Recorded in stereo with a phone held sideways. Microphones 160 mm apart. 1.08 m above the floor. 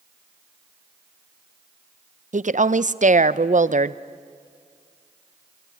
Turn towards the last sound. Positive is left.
turn(degrees=-50)  # may be behind; listen again after turning